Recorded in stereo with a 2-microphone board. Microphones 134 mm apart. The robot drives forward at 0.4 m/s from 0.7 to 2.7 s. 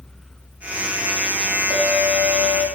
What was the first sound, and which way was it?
A clink, 40° right (ahead or behind).